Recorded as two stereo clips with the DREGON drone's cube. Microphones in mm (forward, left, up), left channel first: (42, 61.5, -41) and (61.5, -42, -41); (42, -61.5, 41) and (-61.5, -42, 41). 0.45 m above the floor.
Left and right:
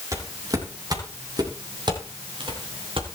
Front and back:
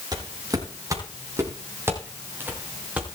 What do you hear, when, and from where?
0.1 s footsteps: 140° right, 7.5 m; by 3.2 s 110° right, 6.5 m